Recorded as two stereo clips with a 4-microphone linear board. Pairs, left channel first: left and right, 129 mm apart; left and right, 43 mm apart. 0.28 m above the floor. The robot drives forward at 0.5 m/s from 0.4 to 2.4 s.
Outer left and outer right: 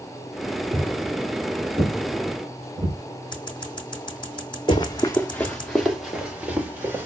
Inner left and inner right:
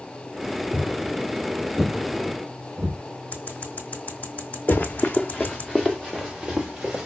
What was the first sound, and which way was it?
Footsteps, 60° right (ahead or behind).